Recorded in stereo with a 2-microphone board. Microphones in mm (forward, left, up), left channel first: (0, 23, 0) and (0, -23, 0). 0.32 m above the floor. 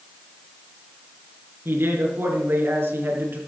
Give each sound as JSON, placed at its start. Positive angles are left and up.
{"t": 1.6, "sound": "a man speaking", "side_deg": -60, "distance_m": 4.0}